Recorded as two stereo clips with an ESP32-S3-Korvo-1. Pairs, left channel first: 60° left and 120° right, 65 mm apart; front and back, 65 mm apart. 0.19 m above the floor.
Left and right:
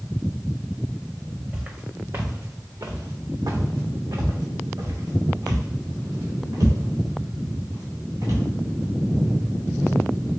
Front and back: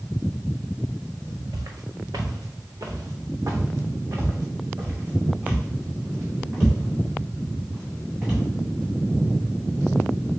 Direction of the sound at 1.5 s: 170° left.